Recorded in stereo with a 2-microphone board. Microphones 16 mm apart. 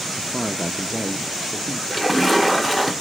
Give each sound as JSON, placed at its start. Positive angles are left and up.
{"t": 0.2, "sound": "a man speaking", "side_deg": -25, "distance_m": 0.6}
{"t": 1.9, "sound": "a splash", "side_deg": -15, "distance_m": 0.9}